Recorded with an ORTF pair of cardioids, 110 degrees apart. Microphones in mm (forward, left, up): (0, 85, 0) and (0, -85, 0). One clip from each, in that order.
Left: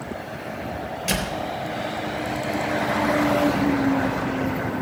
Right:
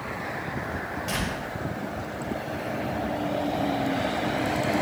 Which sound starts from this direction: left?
A door slam, at 1.1 s.